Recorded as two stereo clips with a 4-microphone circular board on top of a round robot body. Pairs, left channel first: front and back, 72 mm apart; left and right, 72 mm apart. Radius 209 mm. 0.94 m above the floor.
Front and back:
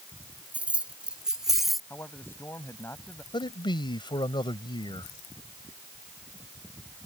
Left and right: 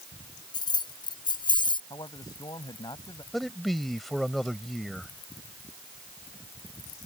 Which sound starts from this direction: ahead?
A man speaking, at 3.3 s.